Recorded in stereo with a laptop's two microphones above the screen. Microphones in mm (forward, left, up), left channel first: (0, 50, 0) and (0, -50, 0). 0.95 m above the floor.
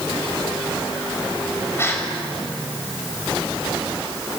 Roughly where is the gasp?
Left.